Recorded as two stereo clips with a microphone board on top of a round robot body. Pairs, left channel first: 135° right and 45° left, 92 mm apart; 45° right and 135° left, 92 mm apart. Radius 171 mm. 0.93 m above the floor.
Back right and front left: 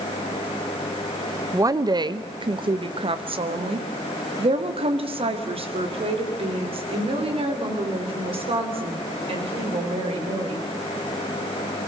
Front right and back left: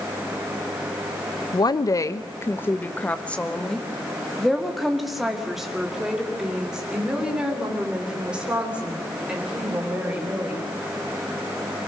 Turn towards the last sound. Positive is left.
turn(degrees=60)